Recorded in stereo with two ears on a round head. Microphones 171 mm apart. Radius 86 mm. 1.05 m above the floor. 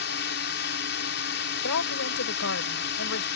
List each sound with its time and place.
0.0 s a drone: 60° left (ahead or behind)
1.6 s a woman speaking: 80° left